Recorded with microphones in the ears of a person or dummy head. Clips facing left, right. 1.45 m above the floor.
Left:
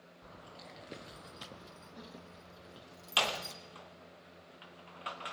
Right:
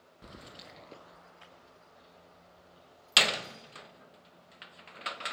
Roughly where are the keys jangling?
Right.